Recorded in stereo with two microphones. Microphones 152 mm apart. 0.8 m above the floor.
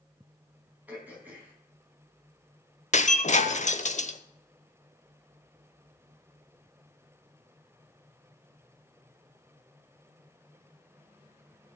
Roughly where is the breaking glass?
Left.